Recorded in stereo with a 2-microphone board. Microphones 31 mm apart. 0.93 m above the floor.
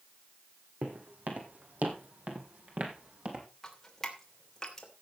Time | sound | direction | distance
0.8 | footsteps | 65° right (ahead or behind) | 3 m
3.6 | dripping | 20° left (ahead or behind) | 2.5 m